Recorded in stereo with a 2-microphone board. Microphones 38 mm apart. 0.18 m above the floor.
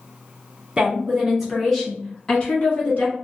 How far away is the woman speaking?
About 1.2 m.